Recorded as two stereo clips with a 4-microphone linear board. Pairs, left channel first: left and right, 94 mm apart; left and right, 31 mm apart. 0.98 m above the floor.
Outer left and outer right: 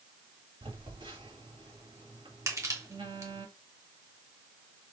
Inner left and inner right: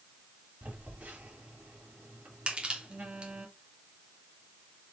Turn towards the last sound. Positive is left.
turn(degrees=-35)  # may be behind; listen again after turning